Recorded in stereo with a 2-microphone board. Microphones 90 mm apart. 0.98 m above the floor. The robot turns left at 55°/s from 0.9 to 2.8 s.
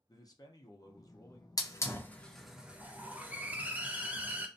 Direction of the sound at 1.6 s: 40° left (ahead or behind).